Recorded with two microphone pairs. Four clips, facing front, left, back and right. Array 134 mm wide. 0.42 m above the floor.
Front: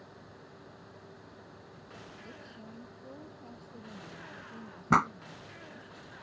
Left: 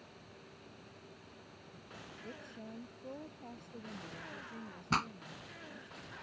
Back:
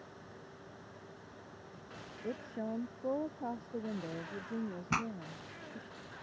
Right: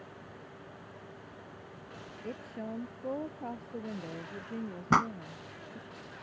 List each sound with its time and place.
2.2 s a woman speaking: 145° right; by 5.9 s 135° right
4.9 s a pop: 40° right